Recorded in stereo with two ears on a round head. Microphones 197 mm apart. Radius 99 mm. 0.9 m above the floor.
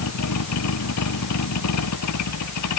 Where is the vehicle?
90° left.